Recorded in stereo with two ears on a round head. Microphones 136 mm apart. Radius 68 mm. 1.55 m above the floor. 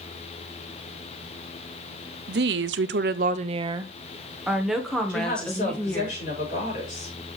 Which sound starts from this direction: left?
A woman speaking, at 5.1 s.